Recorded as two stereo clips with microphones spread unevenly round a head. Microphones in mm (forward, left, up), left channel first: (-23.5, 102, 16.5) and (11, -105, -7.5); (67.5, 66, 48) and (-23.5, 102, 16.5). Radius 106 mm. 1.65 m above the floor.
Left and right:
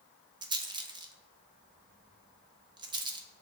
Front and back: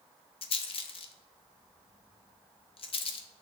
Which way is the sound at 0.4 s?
10° right.